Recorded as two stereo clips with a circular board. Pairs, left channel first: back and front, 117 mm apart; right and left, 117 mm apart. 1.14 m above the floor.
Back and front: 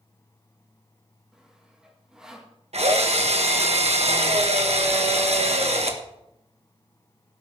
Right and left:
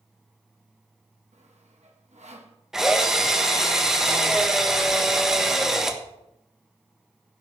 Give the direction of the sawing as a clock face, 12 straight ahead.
9 o'clock.